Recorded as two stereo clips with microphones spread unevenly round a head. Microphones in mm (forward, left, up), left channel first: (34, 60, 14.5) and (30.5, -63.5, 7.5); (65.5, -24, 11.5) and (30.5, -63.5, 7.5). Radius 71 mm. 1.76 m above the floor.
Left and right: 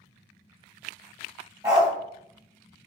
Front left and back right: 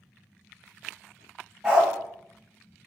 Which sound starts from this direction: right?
A dog barking, at 1.6 s.